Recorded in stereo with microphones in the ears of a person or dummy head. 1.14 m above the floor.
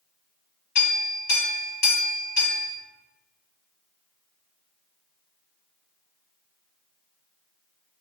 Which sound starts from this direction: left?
A clink, at 0.8 s.